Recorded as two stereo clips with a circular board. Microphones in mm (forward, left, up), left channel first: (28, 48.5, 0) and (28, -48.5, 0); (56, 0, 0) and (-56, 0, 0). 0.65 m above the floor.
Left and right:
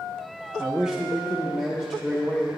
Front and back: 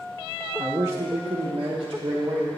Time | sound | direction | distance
0.6 | a man speaking | 145° right | 0.5 m